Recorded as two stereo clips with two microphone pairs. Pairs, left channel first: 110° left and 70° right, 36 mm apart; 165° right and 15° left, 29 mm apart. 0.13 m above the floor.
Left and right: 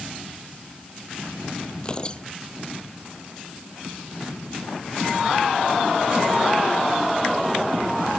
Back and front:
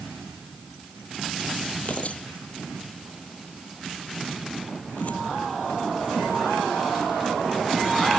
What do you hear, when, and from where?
1.8 s tearing paper: 170° left